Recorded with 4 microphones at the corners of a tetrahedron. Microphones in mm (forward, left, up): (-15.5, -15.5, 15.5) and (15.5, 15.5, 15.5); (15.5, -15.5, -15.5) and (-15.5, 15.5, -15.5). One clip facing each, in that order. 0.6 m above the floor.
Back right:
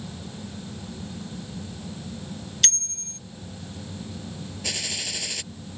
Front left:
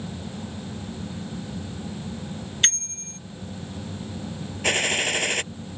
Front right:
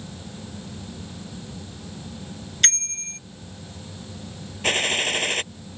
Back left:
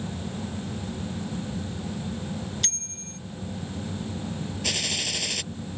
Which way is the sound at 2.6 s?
15° right.